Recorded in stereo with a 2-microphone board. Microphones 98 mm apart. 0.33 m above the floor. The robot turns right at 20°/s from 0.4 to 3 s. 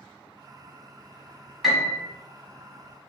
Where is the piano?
5° right (ahead or behind), 0.8 m; by 2.0 s centre (ahead or behind), 0.8 m.